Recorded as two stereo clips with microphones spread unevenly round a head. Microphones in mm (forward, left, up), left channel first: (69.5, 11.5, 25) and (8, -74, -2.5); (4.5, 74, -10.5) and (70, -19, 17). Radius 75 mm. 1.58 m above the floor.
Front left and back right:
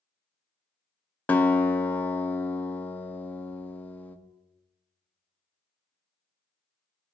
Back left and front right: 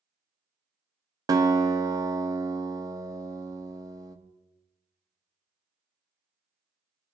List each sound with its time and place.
1.3 s a guitar: 10° right, 0.6 m